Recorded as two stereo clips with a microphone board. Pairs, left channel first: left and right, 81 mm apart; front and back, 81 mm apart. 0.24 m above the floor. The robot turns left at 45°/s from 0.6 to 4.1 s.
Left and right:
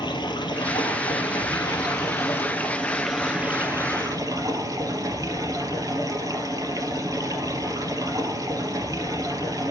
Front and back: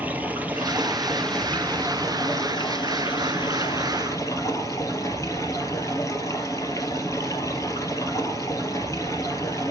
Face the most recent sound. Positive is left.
turn(degrees=-50)